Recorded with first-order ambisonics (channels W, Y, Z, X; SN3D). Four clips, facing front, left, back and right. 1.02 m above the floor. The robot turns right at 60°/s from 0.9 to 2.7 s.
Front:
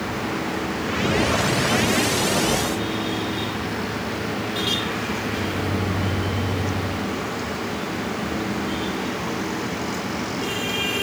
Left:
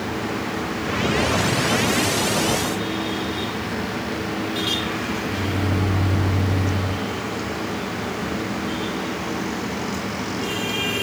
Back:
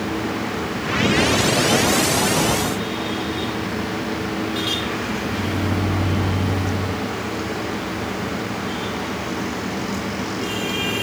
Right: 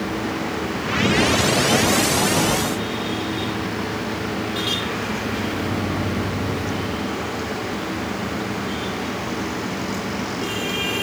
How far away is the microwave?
About 6.5 m.